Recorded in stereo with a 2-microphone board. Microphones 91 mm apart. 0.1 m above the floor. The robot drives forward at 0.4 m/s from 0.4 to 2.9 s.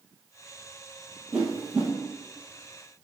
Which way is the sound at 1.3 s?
10° right (ahead or behind).